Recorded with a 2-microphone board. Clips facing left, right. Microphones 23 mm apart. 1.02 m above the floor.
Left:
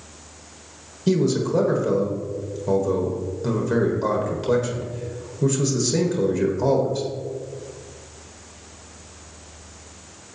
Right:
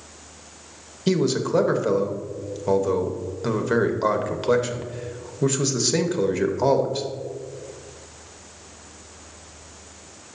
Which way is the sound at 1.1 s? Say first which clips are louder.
Left 1 dB; 35° right (ahead or behind).